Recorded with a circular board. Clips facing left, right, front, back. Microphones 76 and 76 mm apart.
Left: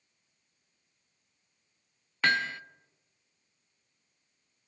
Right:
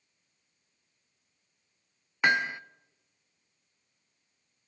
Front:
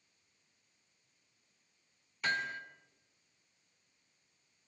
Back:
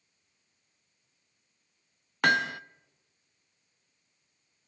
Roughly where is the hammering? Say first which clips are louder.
Right 2 dB, back 10 dB; behind.